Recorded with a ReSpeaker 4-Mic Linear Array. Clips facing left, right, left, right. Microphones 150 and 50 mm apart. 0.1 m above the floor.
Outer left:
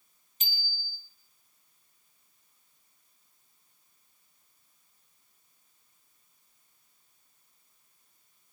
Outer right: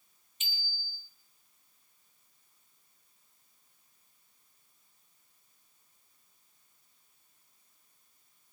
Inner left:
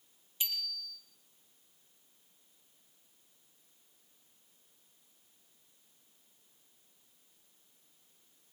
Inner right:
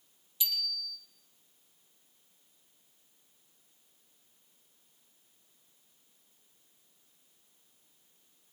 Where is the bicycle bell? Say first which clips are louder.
Outer left 3 dB, inner right 3 dB; 35° left (ahead or behind), 2.5 m.